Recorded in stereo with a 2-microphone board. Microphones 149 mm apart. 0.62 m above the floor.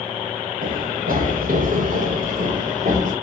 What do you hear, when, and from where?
0.6 s running footsteps: 65° right (ahead or behind), 7 m; by 3.1 s 55° right (ahead or behind), 7 m